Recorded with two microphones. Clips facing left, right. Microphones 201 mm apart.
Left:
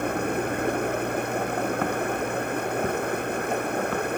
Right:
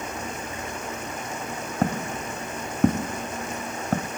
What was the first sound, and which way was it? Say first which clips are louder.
Running water: left 8 dB; 60° left (ahead or behind).